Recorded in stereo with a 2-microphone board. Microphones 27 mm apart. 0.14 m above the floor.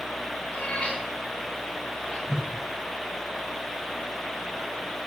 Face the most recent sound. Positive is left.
turn(degrees=-15)  # may be behind; listen again after turning